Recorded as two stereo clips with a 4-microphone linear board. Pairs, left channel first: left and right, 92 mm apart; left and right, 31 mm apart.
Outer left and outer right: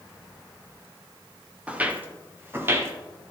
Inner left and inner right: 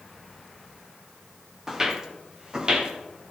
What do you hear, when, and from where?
1.7 s footsteps: 15° right (ahead or behind), 1.7 m; by 2.9 s 30° right (ahead or behind), 2.5 m